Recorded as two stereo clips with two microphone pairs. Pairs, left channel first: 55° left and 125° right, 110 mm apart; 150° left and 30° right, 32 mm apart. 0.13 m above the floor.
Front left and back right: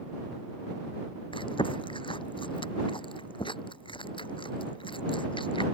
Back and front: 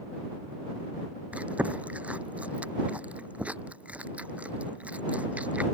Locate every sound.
1.3 s chewing: 15° left